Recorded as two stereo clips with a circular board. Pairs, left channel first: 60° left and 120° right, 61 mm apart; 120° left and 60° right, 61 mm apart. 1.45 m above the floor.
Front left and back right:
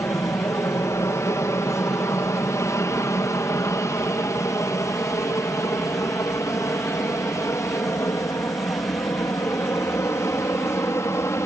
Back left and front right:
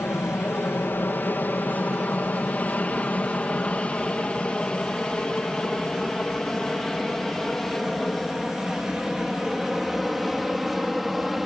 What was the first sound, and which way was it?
An aircraft, 75° left.